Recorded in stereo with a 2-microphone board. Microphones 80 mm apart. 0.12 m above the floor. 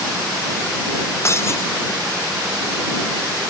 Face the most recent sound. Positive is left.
turn(degrees=35)  # may be behind; listen again after turning